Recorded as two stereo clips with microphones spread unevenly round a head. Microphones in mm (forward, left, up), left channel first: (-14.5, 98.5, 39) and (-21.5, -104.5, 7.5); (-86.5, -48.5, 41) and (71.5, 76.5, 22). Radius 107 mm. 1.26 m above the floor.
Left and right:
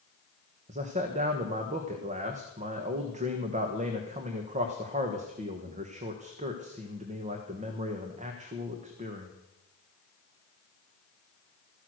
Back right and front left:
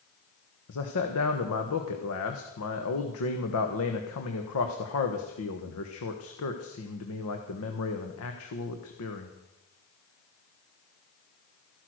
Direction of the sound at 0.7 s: 145° right.